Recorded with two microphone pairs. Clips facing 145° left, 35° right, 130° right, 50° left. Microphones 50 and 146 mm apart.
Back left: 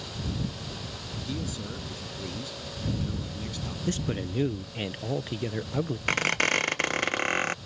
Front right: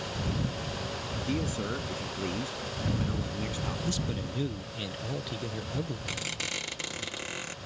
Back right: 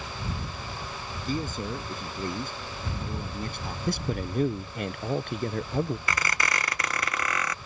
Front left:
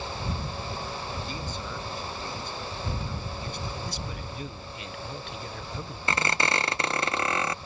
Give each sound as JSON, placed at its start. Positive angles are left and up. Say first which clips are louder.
{"t": 1.2, "sound": "a man speaking", "louder": "front right 4 dB, back right 5 dB", "azimuth_deg": -90}
{"t": 3.9, "sound": "a man speaking", "louder": "back left 3 dB, back right 7 dB", "azimuth_deg": -160}
{"t": 6.1, "sound": "a squeak", "louder": "back left 11 dB, front left 3 dB", "azimuth_deg": 110}